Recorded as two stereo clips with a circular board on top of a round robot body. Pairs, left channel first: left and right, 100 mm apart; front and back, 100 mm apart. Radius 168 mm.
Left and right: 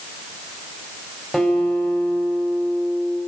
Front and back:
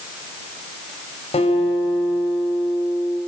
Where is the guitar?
5° left, 6 m.